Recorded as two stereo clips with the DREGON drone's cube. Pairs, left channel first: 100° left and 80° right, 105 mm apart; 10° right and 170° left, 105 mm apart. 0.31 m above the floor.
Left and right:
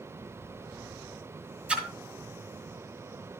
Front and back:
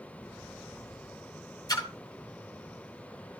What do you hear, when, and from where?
1.7 s a splash: 10° right, 1.6 m